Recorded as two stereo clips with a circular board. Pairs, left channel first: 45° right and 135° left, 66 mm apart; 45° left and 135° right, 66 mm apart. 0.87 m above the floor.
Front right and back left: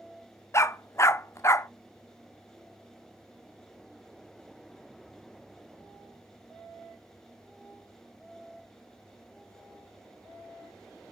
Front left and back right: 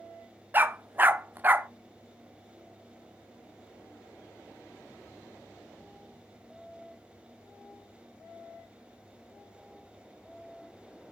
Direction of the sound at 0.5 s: 80° right.